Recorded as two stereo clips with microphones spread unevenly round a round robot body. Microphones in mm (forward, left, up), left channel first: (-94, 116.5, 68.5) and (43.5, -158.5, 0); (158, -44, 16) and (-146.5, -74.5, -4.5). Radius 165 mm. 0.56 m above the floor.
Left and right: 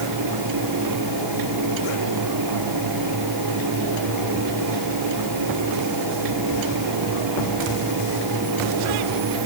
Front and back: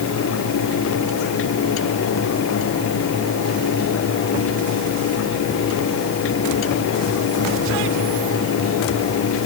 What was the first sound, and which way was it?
Only background noise.